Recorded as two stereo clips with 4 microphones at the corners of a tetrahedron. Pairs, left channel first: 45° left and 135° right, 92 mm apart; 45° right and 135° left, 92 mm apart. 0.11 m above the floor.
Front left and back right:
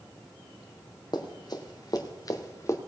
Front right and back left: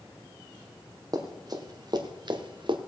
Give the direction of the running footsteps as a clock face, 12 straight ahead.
9 o'clock.